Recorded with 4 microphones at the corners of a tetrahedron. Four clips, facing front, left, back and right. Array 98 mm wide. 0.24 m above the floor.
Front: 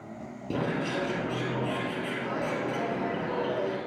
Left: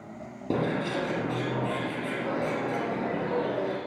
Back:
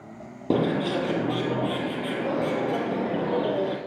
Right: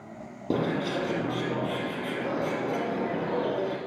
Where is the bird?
Straight behind, 5.5 m.